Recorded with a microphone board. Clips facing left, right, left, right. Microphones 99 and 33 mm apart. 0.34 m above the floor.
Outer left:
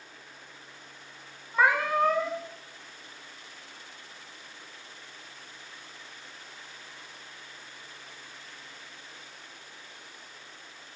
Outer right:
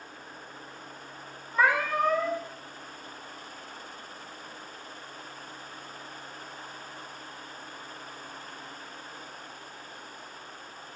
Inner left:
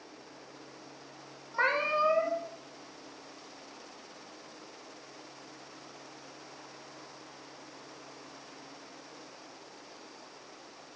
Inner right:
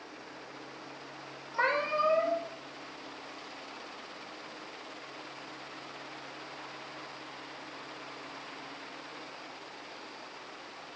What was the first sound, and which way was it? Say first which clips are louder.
A cat meowing: outer left 1 dB, inner left 1 dB; 15° left (ahead or behind).